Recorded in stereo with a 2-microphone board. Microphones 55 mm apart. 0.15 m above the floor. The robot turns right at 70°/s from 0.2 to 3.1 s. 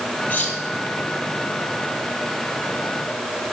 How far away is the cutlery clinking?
About 2 m.